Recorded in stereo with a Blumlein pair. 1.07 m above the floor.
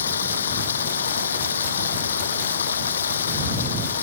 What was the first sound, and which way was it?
Running water, 65° left.